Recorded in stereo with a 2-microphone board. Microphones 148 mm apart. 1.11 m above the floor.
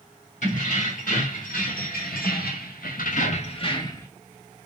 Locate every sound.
0.4 s keys jangling: 60° left (ahead or behind), 1.8 m; by 4.1 s 20° left (ahead or behind), 0.9 m